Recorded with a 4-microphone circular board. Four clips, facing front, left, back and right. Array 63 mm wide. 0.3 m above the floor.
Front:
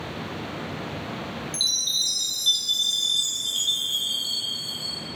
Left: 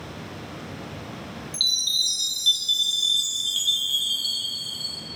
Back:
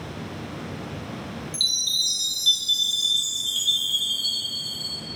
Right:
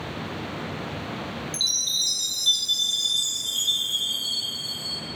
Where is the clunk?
I don't hear a clunk.